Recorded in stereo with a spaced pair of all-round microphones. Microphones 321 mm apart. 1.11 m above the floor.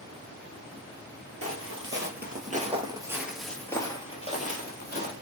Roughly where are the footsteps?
Right.